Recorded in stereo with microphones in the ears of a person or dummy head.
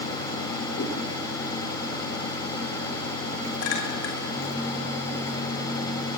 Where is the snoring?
No snoring in this recording.